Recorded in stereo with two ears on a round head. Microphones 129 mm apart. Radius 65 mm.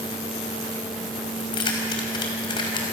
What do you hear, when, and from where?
1.4 s keys jangling: 35° left (ahead or behind), 3.5 m